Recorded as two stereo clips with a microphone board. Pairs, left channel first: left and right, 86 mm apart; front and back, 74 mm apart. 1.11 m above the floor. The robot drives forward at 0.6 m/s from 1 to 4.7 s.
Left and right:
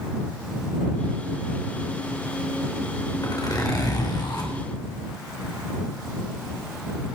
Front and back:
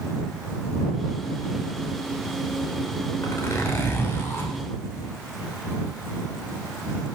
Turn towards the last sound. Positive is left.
turn(degrees=60)